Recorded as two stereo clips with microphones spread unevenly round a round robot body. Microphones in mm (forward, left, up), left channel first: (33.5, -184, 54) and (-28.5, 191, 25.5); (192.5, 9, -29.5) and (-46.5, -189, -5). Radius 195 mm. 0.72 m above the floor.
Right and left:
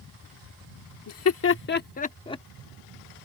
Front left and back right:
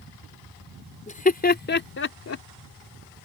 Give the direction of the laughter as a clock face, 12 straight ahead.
1 o'clock.